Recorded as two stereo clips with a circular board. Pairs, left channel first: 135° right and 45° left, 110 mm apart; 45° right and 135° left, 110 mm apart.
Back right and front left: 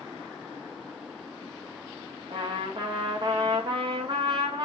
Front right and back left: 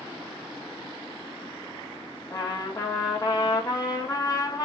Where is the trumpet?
10° left, 1.6 m.